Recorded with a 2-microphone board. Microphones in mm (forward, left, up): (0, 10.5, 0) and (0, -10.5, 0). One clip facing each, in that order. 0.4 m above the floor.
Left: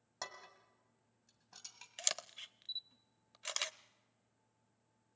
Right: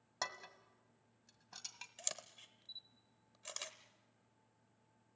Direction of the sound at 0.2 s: 20° right (ahead or behind).